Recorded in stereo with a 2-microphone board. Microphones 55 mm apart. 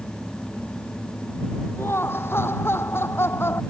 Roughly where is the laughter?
Left.